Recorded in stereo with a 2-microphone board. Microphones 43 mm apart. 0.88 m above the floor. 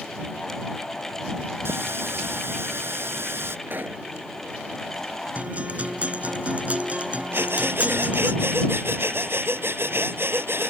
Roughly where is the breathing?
Right.